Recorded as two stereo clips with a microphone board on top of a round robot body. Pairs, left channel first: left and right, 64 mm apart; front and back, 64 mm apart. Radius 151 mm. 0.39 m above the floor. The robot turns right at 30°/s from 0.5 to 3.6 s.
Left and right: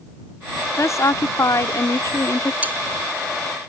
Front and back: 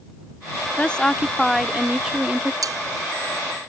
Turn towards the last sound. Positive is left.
turn(degrees=-125)